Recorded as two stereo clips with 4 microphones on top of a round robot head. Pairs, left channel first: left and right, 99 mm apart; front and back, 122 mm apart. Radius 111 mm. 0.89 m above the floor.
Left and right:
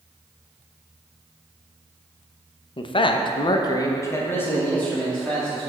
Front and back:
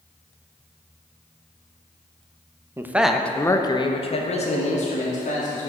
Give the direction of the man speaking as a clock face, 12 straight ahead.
8 o'clock.